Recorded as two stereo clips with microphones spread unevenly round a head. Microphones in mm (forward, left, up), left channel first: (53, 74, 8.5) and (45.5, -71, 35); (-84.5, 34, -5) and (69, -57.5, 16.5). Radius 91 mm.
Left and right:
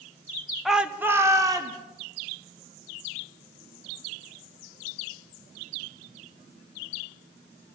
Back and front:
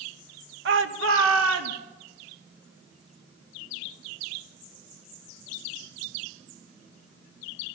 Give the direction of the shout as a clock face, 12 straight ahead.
12 o'clock.